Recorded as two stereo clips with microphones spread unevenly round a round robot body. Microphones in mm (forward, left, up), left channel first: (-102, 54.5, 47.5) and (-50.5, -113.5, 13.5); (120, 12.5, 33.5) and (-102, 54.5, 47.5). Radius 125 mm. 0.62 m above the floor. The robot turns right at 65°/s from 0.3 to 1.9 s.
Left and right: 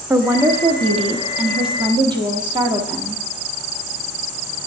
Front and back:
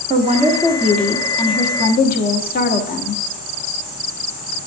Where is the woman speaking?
135° right, 1.1 m; by 3.2 s 30° right, 1.1 m.